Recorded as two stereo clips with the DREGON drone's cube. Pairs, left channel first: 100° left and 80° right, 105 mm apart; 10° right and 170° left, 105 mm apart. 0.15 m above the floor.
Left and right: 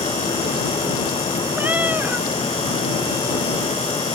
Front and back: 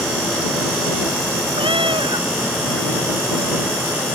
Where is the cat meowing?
155° right.